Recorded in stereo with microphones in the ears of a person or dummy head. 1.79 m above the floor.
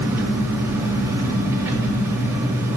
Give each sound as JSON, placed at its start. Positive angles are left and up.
{"t": 0.0, "sound": "an engine running", "side_deg": -15, "distance_m": 3.0}